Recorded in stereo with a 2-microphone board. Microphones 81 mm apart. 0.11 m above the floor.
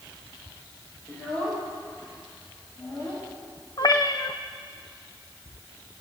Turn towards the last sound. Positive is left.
turn(degrees=50)  # may be behind; listen again after turning